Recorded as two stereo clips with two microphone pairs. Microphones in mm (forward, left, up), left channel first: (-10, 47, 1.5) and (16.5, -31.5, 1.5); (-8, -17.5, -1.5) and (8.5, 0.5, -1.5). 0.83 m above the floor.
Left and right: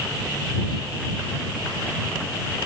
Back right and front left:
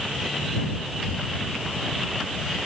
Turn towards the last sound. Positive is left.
No sound to turn to.